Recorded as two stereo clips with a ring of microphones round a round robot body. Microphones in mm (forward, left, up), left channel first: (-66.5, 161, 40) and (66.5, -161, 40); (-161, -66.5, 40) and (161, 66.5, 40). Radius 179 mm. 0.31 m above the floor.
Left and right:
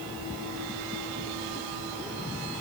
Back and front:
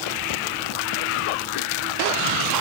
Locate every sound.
Only background noise.